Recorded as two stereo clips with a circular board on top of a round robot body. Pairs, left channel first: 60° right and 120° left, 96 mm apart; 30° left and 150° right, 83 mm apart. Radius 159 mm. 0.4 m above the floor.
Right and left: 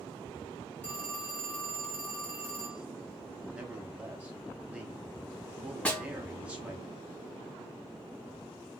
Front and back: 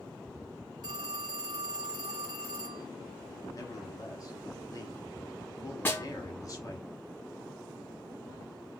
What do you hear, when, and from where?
0.8 s a phone ringing: 130° right, 1.9 m
3.5 s a man speaking: 50° left, 1.3 m
5.8 s a snare drum: 5° left, 1.4 m